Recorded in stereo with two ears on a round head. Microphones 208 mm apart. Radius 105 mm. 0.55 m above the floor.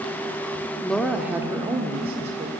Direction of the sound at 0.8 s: 5° left (ahead or behind).